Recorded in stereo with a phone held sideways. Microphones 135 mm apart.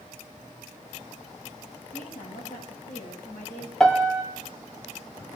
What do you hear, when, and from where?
1.9 s a woman speaking: 75° left (ahead or behind), 7.5 m; by 3.7 s 65° left (ahead or behind), 6.5 m
3.8 s a piano: 5° left (ahead or behind), 1.6 m